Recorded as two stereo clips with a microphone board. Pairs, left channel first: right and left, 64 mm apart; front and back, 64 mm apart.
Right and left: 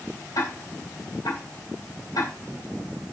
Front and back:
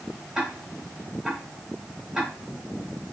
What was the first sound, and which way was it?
Ticking, 95° right.